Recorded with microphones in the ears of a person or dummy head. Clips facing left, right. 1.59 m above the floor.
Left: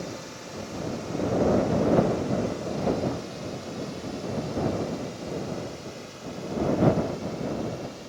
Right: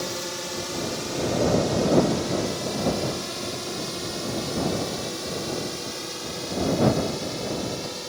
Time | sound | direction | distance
0.0 | a drone | 75° right (ahead or behind) | ?